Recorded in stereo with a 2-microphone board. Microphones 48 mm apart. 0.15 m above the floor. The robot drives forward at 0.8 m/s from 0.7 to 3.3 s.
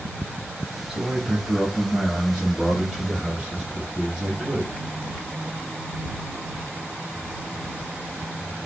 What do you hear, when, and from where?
0.9 s a man speaking: 20° right (ahead or behind), 1.9 m; by 4.7 s 10° right (ahead or behind), 3 m